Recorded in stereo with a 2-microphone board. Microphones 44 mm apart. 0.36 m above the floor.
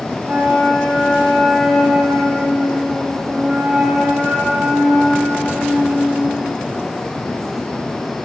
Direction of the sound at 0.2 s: 40° right (ahead or behind).